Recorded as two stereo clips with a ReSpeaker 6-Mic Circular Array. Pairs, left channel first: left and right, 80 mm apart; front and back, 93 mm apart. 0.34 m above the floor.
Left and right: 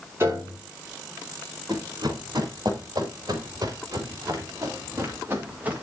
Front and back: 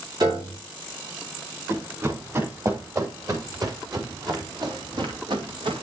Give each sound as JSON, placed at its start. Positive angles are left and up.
{"t": 0.2, "sound": "a piano", "azimuth_deg": -145, "distance_m": 4.0}
{"t": 1.7, "sound": "running footsteps", "azimuth_deg": -120, "distance_m": 5.0}